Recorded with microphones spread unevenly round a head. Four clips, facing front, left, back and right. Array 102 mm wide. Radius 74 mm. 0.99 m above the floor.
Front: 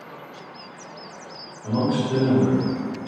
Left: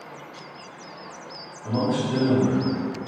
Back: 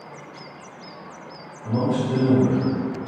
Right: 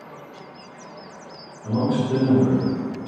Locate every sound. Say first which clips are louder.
1.6 s a man speaking: right 2 dB, even; 25° right, 1.4 m; by 3.1 s 70° right, 1.3 m